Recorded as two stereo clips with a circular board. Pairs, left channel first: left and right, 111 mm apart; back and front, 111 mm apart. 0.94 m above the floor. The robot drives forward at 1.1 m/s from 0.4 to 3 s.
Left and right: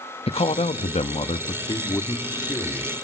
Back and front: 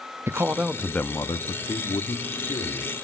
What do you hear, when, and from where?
0.3 s a man speaking: 70° left, 1.0 m; by 2.9 s 160° left, 2.5 m